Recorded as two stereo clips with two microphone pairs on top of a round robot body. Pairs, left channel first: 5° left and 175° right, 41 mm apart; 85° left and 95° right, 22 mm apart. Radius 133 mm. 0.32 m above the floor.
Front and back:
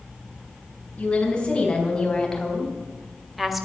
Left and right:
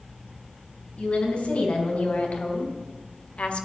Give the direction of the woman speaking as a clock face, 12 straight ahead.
10 o'clock.